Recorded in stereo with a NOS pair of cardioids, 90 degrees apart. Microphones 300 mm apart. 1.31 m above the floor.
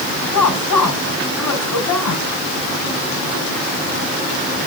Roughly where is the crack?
No crack in this recording.